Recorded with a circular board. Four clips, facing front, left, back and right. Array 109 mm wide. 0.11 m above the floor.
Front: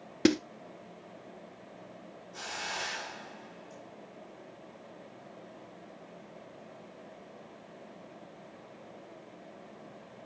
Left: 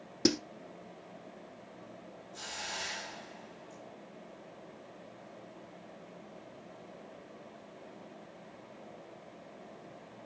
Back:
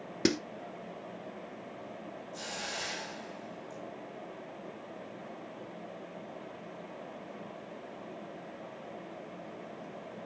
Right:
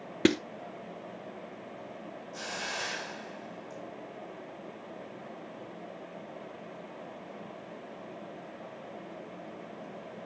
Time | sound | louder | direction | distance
0.2 | a snare drum | right 5 dB, front 4 dB | 80° right | 0.8 m
2.3 | a hiss | right 5 dB, front 3 dB | 80° right | 7.5 m